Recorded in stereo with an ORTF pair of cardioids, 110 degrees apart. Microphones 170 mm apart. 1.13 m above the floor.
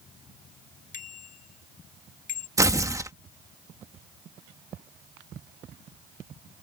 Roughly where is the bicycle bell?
Ahead left.